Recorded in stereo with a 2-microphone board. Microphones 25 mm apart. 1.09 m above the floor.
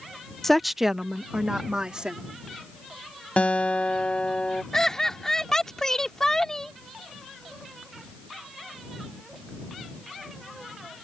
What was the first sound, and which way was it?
A woman speaking, 15° left (ahead or behind).